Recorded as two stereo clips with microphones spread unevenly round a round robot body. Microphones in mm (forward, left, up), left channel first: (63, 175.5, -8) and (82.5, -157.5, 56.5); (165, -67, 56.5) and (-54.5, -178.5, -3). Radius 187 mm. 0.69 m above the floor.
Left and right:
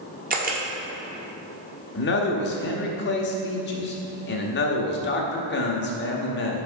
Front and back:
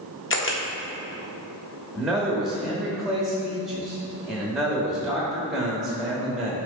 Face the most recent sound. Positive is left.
turn(degrees=130)